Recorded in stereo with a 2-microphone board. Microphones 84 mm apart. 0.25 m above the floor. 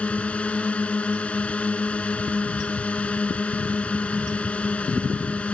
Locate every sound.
0.0 s a drone: 15° left (ahead or behind)